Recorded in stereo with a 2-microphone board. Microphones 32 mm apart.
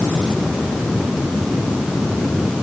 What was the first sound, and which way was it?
Only background noise.